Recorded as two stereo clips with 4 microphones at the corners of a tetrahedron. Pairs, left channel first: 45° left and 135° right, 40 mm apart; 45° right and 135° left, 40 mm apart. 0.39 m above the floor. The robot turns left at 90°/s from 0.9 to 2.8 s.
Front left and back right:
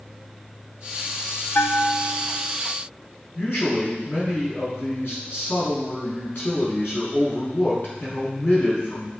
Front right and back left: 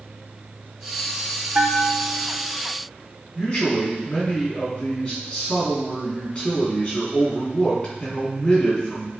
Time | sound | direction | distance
1.6 | a bell | 80° left | 0.7 m
3.4 | a man speaking | 20° left | 3 m